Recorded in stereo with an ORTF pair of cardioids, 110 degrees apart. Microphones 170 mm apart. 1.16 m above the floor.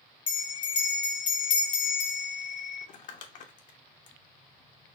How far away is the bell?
About 1.0 m.